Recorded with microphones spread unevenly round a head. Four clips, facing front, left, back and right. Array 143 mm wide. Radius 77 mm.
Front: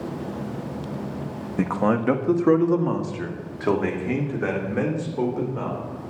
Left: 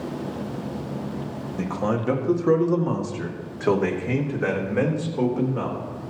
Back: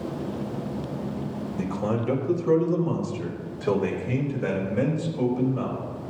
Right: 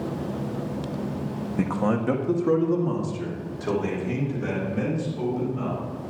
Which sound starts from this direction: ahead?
A man speaking, at 1.6 s.